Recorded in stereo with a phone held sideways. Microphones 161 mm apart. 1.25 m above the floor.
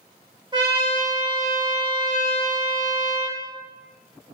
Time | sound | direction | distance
0.5 | a trumpet | 30° right (ahead or behind) | 0.8 m